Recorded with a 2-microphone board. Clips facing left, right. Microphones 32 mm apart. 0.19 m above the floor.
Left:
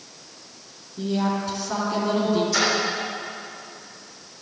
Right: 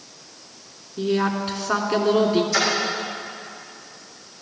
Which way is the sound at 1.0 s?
45° right (ahead or behind).